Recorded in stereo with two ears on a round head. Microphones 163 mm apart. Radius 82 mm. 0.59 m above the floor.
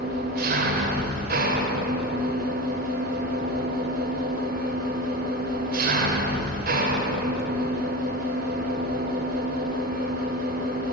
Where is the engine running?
55° right (ahead or behind), 2.5 m.